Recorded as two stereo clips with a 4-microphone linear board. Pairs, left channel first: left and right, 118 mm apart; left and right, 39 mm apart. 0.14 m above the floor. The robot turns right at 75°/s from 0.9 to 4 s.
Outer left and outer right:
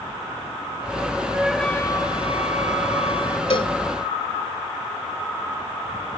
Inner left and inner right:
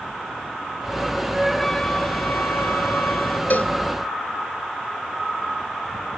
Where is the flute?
15° right; by 3.4 s 140° left.